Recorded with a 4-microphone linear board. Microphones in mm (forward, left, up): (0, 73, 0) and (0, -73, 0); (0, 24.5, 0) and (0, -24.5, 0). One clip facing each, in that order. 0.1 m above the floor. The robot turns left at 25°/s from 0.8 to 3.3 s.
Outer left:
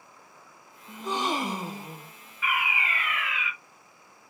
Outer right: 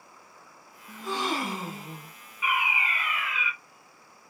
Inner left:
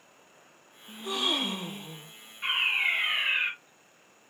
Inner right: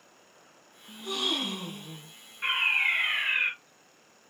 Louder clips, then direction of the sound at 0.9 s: Outer left 1 dB, inner left 1 dB; 20° left (ahead or behind).